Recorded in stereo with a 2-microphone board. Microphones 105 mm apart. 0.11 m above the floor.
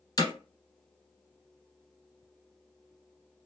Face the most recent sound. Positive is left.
turn(degrees=35)  # may be behind; listen again after turning